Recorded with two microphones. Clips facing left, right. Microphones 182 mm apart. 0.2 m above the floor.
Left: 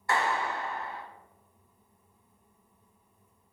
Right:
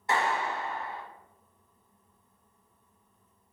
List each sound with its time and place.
0.1 s a clap: 20° right (ahead or behind), 0.8 m